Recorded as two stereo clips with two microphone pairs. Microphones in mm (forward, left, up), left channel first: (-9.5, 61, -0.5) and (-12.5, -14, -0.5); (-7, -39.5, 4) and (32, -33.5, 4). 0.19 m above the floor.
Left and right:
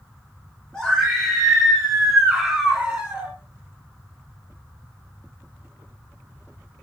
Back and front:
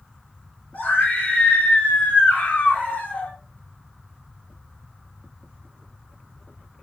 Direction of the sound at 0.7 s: 160° left.